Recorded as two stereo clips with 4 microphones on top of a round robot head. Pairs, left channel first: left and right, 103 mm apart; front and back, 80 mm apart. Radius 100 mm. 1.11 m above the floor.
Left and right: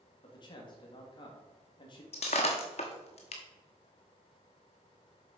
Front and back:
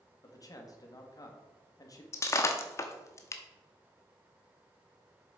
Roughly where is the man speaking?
Ahead left.